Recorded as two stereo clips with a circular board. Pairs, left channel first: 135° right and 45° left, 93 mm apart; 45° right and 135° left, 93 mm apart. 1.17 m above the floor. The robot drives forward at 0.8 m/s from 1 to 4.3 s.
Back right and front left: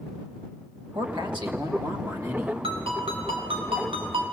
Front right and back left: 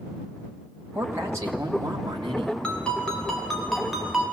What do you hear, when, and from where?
0.9 s a man speaking: 70° left, 2 m; by 2.5 s 105° left, 2 m
2.6 s a ringtone: 35° left, 4 m; by 4.2 s 50° left, 3 m